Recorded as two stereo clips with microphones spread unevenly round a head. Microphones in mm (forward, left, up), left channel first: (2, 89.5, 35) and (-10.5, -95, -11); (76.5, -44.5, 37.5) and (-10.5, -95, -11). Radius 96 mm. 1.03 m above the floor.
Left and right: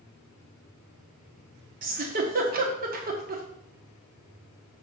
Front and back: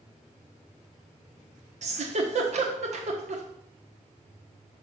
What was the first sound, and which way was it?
A giggle, 140° right.